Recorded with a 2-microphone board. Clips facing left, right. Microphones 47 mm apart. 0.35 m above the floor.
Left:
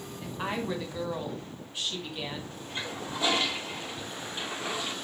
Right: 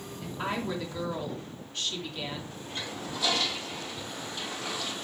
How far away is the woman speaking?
About 2.5 m.